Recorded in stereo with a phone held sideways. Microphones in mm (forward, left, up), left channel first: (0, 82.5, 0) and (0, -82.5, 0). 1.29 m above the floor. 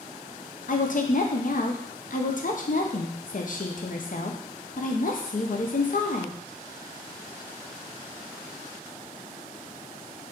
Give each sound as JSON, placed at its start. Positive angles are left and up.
{"t": 0.7, "sound": "a woman speaking", "side_deg": 60, "distance_m": 0.6}